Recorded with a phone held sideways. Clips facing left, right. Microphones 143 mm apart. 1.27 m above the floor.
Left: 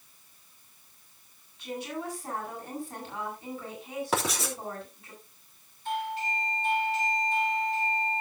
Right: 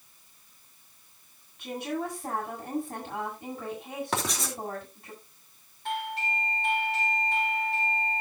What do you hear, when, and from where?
1.6 s a woman speaking: 60° right (ahead or behind), 8.5 m
4.1 s writing: 5° left (ahead or behind), 3 m
5.8 s a doorbell: 65° right (ahead or behind), 2.5 m